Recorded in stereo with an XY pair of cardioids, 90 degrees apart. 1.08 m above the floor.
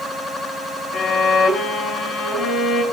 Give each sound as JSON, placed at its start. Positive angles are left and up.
{"t": 0.9, "sound": "a violin", "azimuth_deg": 70, "distance_m": 7.0}